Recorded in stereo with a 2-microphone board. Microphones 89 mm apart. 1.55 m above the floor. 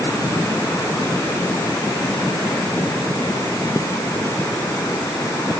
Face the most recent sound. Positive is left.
No sound to turn to.